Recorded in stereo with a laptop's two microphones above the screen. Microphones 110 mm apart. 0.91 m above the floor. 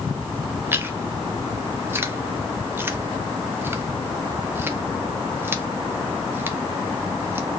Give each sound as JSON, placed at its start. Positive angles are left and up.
{"t": 0.7, "sound": "chewing", "side_deg": -20, "distance_m": 0.9}